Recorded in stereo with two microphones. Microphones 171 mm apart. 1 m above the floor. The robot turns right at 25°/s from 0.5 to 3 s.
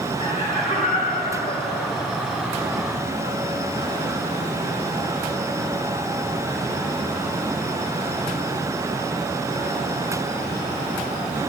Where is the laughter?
40° left, 5 m; by 2.1 s 80° left, 5 m.